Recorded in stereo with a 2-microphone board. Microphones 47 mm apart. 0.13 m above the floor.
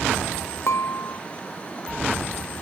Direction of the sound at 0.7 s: 70° left (ahead or behind).